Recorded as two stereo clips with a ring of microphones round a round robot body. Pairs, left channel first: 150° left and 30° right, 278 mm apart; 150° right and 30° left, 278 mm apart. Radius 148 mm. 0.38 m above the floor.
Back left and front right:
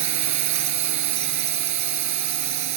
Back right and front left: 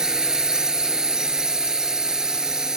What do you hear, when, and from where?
0.0 s a drone: 60° right